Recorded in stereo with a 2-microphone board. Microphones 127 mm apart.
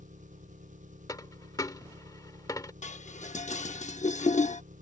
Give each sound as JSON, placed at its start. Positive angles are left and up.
{"t": 0.0, "sound": "an engine running", "side_deg": -85}
{"t": 1.1, "sound": "a dropped coin", "side_deg": 30}
{"t": 2.8, "sound": "dishes clattering", "side_deg": 70}